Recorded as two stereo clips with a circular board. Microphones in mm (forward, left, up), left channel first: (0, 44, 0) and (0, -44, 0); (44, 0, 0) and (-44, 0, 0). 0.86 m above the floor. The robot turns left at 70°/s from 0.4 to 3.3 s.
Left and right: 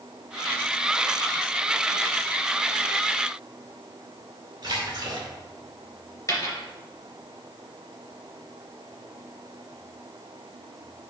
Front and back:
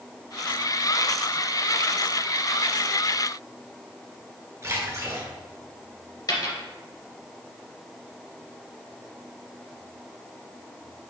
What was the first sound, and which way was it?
A splash, 125° right.